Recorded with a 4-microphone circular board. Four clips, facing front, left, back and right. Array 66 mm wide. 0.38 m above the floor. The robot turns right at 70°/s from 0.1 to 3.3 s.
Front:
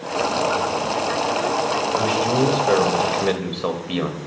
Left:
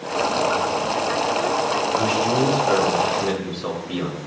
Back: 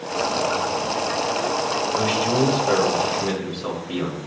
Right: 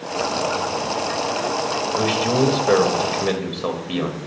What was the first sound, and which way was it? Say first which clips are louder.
A man speaking: right 3 dB, front 1 dB; 120° right.